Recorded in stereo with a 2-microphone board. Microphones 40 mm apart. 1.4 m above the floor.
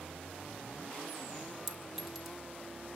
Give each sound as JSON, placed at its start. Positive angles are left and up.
{"t": 1.7, "sound": "a clink", "side_deg": -10, "distance_m": 2.0}